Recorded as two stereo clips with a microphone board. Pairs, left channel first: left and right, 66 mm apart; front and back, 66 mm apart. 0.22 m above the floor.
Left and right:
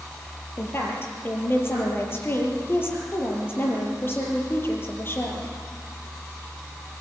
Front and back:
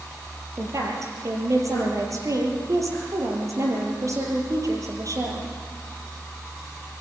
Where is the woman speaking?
145° left, 6 m.